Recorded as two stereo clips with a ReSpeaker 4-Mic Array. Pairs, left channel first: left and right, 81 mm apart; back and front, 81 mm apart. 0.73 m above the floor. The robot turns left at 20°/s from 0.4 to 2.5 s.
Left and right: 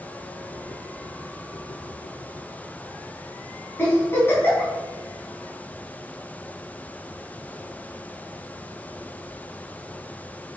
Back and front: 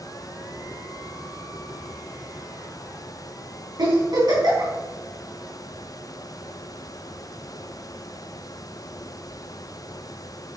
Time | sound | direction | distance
3.8 | a giggle | 30° left | 4 m